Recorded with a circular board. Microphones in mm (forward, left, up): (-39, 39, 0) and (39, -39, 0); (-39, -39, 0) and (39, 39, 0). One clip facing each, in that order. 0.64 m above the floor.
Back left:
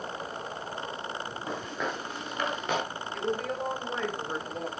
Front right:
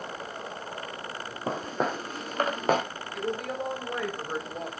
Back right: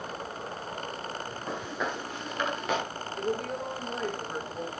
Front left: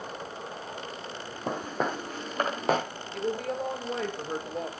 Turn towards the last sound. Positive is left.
turn(degrees=40)